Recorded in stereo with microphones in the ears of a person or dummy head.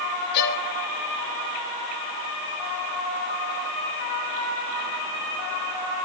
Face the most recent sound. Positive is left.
turn(degrees=55)  # may be behind; listen again after turning